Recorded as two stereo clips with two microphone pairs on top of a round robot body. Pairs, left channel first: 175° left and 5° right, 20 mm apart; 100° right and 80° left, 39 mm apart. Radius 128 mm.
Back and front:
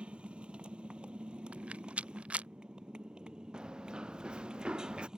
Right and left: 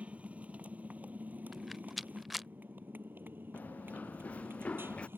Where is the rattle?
10° right.